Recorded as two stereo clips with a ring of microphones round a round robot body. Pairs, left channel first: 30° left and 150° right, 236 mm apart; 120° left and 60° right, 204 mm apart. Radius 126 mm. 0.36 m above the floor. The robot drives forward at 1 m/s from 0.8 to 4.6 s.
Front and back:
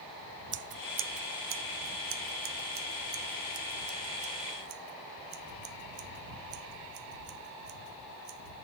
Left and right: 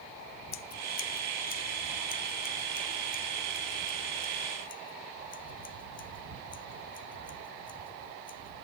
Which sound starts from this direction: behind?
Scissors, at 0.5 s.